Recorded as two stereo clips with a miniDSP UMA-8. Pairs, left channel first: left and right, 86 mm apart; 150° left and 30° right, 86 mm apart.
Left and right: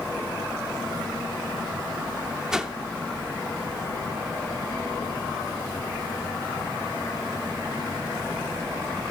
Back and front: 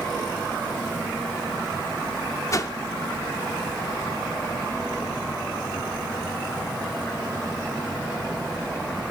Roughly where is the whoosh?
Behind.